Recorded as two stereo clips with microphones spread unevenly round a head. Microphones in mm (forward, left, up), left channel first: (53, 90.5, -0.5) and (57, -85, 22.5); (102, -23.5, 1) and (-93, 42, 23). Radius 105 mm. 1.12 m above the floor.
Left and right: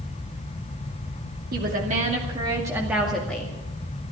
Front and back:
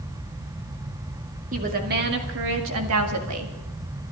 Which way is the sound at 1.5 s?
140° right.